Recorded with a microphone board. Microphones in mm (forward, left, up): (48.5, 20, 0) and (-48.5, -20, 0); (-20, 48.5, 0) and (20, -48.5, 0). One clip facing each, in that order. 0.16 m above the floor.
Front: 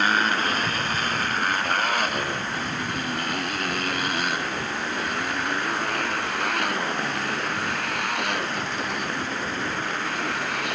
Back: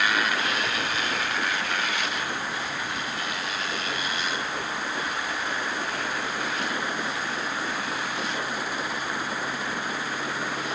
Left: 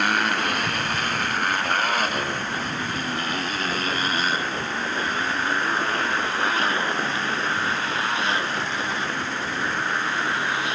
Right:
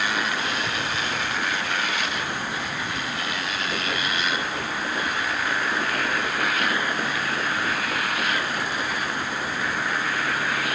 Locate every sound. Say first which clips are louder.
0.0 s a motorcycle: front 3 dB, left 3 dB; 75° left; by 10.8 s 45° left